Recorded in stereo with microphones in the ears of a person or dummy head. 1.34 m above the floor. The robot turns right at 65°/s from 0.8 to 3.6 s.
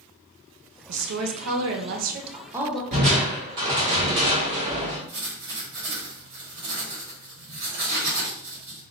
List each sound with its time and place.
0.9 s a woman speaking: 120° right, 0.6 m; by 2.8 s 5° left, 0.6 m
2.9 s crushing: 105° right, 1.2 m; by 5.0 s 60° right, 1.2 m
5.1 s writing: 60° right (ahead or behind), 1.6 m